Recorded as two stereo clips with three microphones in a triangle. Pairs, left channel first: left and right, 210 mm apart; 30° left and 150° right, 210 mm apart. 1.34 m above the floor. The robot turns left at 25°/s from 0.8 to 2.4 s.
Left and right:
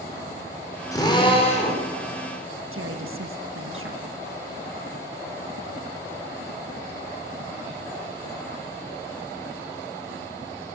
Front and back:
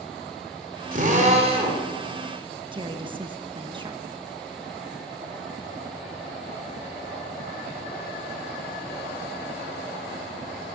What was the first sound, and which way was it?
A drill, 165° left.